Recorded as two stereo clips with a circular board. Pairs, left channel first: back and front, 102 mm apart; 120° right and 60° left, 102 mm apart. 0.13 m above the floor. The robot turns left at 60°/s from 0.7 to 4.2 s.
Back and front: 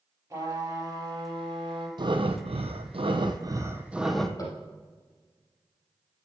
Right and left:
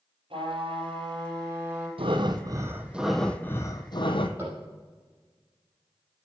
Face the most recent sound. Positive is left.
turn(degrees=125)